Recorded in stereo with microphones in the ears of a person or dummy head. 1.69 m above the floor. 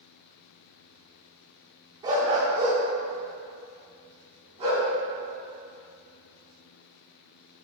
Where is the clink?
No clink in this recording.